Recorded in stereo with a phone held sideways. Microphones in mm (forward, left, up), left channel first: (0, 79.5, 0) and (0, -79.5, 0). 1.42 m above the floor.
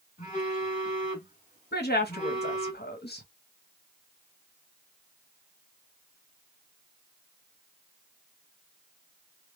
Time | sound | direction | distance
0.2 | a phone buzzing | 45° left (ahead or behind) | 1.6 m
1.7 | a woman speaking | 75° left (ahead or behind) | 1.0 m